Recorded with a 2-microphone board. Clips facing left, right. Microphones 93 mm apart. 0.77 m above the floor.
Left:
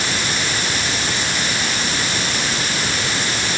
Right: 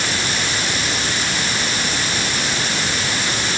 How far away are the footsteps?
No footsteps in this recording.